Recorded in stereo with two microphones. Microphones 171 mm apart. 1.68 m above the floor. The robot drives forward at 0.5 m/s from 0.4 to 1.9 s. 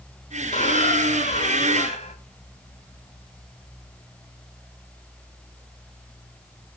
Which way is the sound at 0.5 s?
45° left (ahead or behind).